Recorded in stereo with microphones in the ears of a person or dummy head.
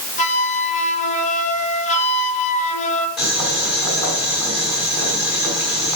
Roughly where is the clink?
No clink in this recording.